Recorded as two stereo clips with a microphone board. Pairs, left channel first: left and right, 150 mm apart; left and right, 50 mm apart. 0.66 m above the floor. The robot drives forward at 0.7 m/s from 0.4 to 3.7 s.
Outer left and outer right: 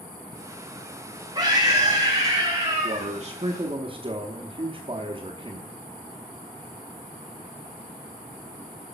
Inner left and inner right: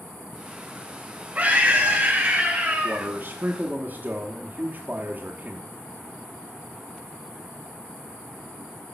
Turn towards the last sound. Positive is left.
turn(degrees=-35)  # may be behind; listen again after turning